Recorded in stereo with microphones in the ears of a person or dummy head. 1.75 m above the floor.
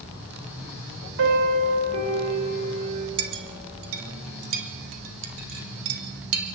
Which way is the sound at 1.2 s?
70° right (ahead or behind).